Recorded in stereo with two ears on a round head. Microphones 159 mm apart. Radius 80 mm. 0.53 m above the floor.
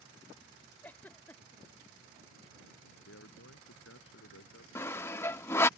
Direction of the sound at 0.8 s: 10° left (ahead or behind).